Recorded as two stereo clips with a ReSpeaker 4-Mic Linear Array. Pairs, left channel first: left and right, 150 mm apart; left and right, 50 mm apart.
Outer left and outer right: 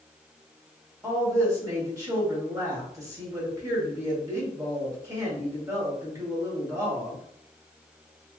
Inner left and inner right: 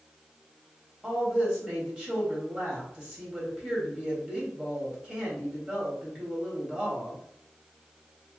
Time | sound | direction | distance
1.0 | a woman speaking | 20° right (ahead or behind) | 1.6 m